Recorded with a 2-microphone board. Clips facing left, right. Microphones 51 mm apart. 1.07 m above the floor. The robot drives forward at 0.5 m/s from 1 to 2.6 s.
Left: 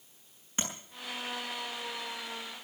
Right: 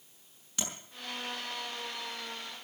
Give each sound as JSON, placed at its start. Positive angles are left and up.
{"t": 0.6, "sound": "tapping", "side_deg": 30, "distance_m": 6.5}